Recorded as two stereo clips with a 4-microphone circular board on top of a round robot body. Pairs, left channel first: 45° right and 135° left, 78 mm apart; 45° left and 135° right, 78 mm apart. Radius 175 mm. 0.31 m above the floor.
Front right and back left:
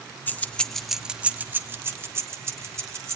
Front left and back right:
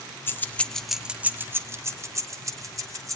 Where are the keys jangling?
5° left, 0.9 m; by 3.2 s 175° right, 2.0 m.